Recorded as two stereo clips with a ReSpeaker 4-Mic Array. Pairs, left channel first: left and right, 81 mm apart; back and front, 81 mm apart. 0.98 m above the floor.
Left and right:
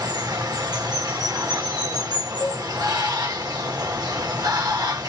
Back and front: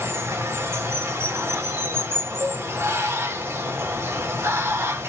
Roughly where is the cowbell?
Ahead left.